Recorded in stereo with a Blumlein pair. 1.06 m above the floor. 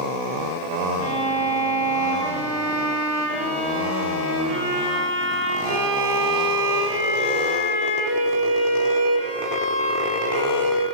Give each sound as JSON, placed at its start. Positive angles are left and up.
{"t": 1.0, "sound": "a violin", "azimuth_deg": -25, "distance_m": 1.4}